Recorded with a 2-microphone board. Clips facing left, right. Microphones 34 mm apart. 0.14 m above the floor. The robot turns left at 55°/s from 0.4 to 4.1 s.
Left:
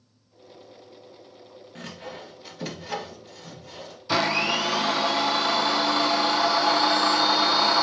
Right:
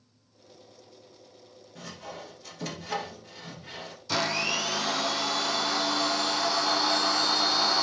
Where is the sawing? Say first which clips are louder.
Left 2 dB; 50° left (ahead or behind), 2 m; by 4.0 s 45° right (ahead or behind), 2 m.